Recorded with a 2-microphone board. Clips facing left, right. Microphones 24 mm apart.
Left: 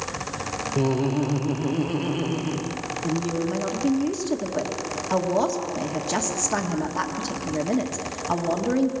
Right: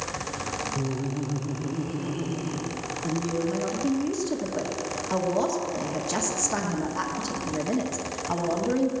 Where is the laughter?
70° left (ahead or behind), 0.7 m; by 2.8 s 35° left (ahead or behind), 1.4 m.